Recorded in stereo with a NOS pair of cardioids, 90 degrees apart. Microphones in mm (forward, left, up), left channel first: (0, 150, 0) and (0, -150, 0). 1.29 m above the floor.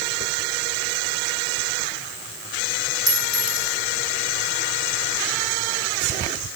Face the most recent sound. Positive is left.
turn(degrees=-30)